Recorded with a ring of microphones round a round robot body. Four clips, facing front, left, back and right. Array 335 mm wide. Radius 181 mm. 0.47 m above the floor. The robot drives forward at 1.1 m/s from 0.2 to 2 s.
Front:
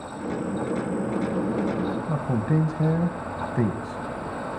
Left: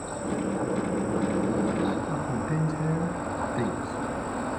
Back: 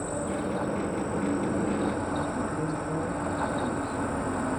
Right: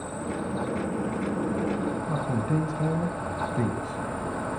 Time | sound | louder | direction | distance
0.0 | an insect | left 2 dB, even | 170° left | 0.8 m
2.1 | a man speaking | right 2 dB, front 4 dB | 15° right | 3.5 m